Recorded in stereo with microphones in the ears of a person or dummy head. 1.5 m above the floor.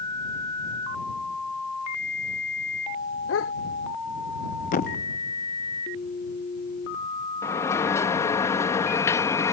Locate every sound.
3.3 s a dog barking: 80° left
4.7 s a thud: 50° left (ahead or behind)
7.4 s a sliding door: 20° left (ahead or behind)